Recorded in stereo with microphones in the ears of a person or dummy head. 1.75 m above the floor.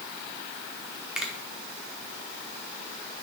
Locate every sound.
1.1 s a finger snap: centre (ahead or behind), 1.4 m